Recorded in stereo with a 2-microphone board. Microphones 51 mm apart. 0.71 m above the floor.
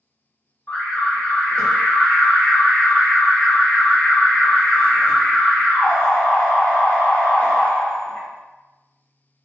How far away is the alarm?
About 1.8 m.